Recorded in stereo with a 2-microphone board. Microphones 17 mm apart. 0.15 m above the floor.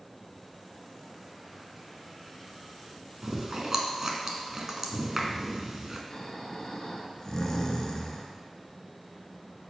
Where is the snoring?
35° left (ahead or behind), 1.1 m.